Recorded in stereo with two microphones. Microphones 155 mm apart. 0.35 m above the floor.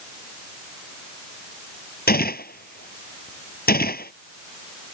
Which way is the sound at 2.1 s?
75° left (ahead or behind).